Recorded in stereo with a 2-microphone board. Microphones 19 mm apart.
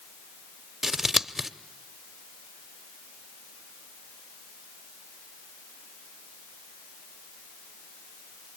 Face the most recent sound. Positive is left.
turn(degrees=-15)  # may be behind; listen again after turning